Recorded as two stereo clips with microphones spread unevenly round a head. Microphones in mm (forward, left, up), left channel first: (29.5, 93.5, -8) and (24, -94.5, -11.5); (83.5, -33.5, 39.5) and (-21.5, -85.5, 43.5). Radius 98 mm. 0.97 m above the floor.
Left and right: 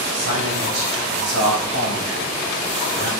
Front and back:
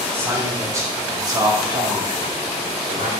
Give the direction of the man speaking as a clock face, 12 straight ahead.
3 o'clock.